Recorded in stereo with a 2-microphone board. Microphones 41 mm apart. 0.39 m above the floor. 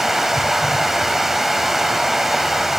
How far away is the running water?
About 0.7 m.